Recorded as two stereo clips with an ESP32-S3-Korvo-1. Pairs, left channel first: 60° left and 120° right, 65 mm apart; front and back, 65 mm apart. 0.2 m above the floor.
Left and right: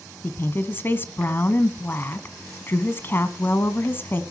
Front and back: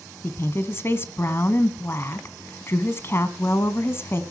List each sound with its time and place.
0.2 s a woman speaking: 25° left, 1.5 m